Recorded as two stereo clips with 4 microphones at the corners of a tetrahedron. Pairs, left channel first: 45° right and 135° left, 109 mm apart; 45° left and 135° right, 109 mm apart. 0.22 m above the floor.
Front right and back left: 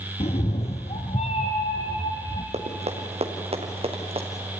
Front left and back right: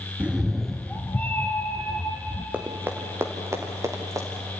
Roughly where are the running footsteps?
Behind left.